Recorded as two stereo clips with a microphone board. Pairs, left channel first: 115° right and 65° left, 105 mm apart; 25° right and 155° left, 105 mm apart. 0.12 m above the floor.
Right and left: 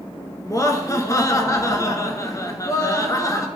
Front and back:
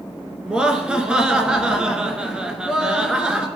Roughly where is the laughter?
Behind right.